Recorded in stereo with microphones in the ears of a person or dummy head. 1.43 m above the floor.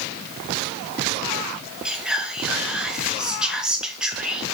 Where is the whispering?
5° right (ahead or behind), 0.9 m.